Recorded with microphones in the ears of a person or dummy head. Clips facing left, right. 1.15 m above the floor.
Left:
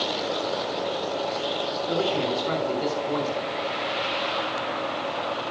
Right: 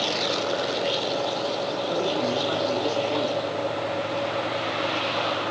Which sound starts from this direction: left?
A man speaking, at 1.9 s.